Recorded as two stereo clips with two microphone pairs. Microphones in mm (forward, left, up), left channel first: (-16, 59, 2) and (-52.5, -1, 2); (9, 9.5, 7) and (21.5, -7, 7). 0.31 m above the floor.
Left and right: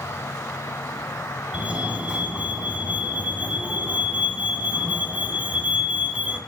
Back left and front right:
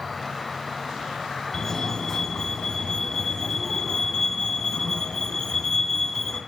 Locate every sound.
0.0 s an insect: 45° left, 0.7 m
1.5 s a fire alarm: 175° left, 2.5 m